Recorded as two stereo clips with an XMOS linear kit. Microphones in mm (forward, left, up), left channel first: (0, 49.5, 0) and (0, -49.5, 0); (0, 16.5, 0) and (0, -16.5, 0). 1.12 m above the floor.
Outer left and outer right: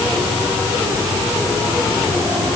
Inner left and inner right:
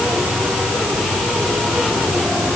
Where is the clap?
No clap in this recording.